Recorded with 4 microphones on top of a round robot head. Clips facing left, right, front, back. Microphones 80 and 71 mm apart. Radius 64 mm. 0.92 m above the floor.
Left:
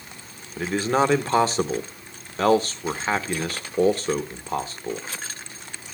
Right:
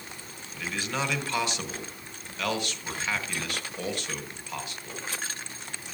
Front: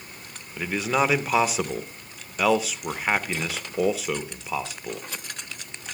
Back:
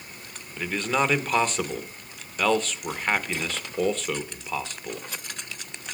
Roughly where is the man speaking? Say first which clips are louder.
Left 10 dB, front 1 dB; left.